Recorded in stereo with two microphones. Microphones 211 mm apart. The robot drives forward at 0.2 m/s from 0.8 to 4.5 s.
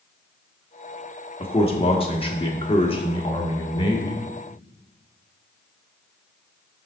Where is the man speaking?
30° left (ahead or behind), 1.2 m; by 4.2 s 25° left (ahead or behind), 1.4 m.